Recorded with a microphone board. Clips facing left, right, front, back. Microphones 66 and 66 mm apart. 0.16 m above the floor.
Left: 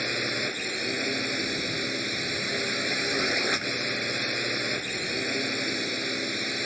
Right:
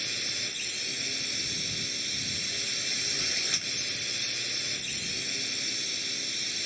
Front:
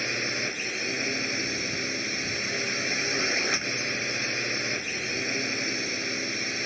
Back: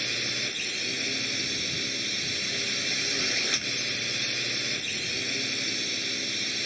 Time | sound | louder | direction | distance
0.0 | a drone | left 9 dB, front 4 dB | 60° left | ?